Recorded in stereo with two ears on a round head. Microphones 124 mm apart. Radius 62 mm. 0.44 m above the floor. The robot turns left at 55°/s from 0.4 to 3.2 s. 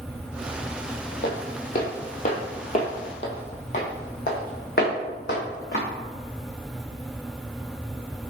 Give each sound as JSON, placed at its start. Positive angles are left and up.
{"t": 1.2, "sound": "footsteps", "side_deg": 75, "distance_m": 1.2}